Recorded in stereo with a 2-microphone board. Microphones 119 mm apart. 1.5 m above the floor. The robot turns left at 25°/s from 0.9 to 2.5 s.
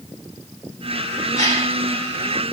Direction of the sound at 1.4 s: 85° right.